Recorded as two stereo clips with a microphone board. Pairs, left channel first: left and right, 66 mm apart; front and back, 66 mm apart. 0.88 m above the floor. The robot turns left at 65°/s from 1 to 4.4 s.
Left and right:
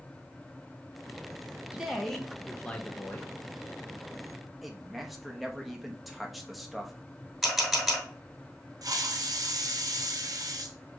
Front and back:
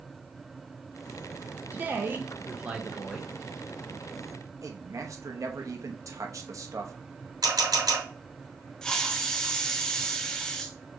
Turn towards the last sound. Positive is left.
turn(degrees=-80)